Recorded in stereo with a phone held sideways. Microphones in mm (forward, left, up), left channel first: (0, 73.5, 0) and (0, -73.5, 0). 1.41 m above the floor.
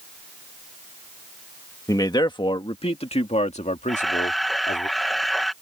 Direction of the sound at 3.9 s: Centre (ahead or behind).